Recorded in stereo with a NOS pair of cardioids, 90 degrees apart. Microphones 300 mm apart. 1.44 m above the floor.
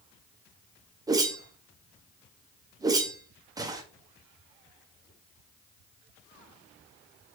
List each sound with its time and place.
1.1 s a whoosh: 10° right, 0.8 m